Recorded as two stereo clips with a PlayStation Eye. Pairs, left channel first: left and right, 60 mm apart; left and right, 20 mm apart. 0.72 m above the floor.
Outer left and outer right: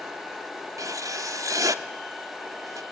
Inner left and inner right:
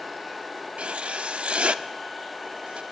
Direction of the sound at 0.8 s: 75° right (ahead or behind).